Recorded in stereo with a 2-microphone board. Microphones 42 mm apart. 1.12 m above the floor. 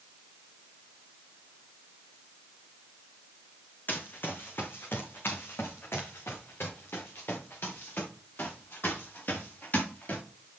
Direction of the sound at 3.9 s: 50° left (ahead or behind).